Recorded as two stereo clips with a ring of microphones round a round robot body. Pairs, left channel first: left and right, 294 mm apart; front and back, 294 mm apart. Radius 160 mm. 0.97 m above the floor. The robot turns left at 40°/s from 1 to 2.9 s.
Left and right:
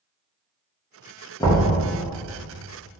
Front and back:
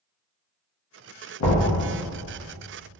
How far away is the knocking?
About 0.7 m.